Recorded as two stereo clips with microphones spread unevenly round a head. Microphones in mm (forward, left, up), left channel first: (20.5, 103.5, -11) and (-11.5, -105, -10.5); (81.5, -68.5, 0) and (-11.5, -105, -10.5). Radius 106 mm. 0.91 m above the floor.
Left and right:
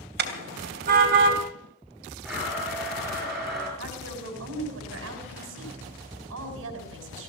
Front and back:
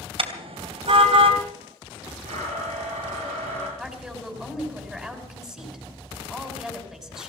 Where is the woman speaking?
70° right, 5.5 m.